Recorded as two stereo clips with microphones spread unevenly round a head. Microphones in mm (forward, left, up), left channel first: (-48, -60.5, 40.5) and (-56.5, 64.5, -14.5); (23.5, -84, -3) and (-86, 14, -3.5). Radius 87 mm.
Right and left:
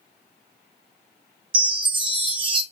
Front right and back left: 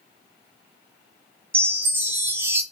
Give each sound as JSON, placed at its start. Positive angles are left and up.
{"t": 1.5, "sound": "a chime", "azimuth_deg": 60, "distance_m": 0.5}